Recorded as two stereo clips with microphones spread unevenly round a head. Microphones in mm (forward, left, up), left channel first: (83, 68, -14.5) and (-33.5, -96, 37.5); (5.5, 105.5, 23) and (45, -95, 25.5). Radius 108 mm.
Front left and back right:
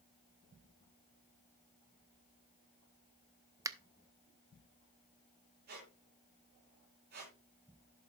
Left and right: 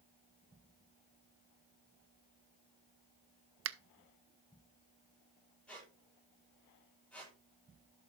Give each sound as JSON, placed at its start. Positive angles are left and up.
{"t": 3.6, "sound": "a finger snap", "azimuth_deg": -55, "distance_m": 0.6}
{"t": 5.7, "sound": "a squeak", "azimuth_deg": -175, "distance_m": 7.0}